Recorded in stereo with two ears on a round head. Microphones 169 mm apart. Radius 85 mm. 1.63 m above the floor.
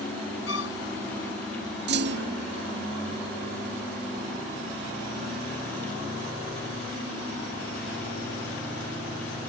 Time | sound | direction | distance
0.5 | a violin | 70° left (ahead or behind) | ?
1.9 | a clunk | 60° right (ahead or behind) | ?